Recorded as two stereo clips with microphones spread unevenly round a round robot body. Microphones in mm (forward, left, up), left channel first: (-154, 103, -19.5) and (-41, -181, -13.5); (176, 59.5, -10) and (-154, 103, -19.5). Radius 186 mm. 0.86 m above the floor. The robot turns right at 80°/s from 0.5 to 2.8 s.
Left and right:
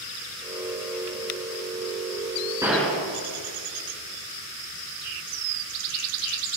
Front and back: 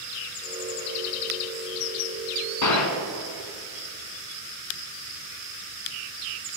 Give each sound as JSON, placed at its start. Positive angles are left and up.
{"t": 2.6, "sound": "a gunshot", "azimuth_deg": 10, "distance_m": 1.5}